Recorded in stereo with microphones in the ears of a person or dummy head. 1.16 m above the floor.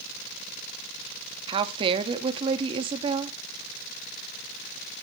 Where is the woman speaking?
30° right (ahead or behind), 1.6 m.